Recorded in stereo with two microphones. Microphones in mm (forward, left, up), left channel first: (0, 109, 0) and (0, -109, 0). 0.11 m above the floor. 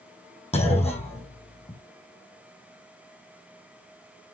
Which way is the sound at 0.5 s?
25° left (ahead or behind).